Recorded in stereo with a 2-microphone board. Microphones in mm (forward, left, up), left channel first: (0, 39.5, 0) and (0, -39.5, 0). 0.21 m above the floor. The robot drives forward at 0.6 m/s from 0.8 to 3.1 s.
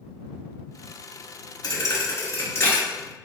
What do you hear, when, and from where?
1.6 s a thud: 50° left (ahead or behind), 0.9 m; by 2.8 s 30° left (ahead or behind), 1.4 m